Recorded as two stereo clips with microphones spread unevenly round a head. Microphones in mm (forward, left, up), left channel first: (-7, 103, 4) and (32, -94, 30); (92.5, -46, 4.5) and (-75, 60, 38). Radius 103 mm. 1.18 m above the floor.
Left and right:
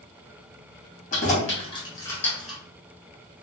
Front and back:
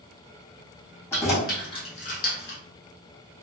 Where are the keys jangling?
50° left, 1.3 m; by 2.6 s 5° left, 0.9 m.